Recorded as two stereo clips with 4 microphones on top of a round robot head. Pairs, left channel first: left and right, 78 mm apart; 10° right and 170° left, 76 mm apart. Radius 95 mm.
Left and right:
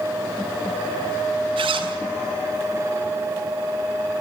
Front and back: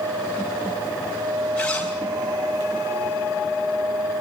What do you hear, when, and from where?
1.6 s a zipper: 90° right, 6.5 m